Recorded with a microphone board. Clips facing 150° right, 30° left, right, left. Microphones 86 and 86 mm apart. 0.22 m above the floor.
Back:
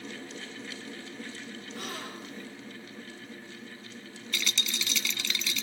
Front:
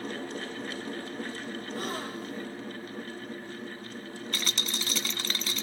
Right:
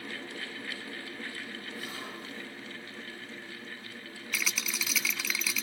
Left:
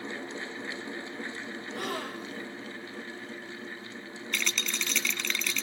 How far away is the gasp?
About 4.5 m.